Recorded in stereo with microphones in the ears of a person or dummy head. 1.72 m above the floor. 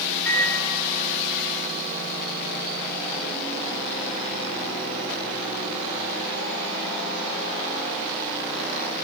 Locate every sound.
0.2 s a microwave: 5° left (ahead or behind), 5.5 m